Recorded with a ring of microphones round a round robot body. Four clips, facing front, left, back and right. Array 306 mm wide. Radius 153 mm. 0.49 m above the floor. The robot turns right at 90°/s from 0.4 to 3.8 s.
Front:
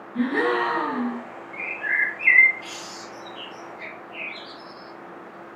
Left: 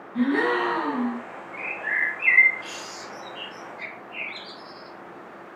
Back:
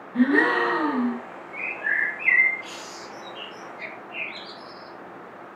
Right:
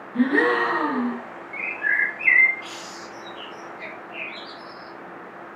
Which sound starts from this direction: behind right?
A gasp, at 0.1 s.